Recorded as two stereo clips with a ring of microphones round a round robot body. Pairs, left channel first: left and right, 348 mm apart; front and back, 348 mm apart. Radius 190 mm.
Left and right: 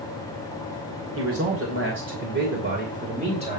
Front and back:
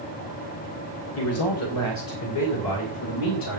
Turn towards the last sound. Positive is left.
turn(degrees=-15)